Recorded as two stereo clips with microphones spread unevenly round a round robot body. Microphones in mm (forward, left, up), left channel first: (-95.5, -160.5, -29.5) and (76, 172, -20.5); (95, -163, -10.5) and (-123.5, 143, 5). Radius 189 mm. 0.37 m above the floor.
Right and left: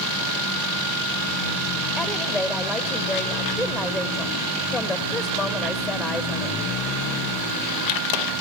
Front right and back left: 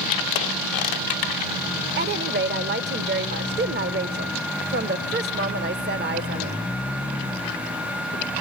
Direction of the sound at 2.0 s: 155° left.